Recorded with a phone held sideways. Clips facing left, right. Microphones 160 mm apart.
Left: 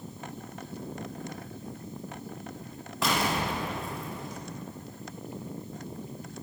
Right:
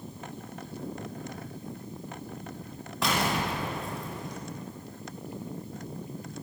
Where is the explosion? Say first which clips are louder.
Even; centre (ahead or behind), 0.6 m.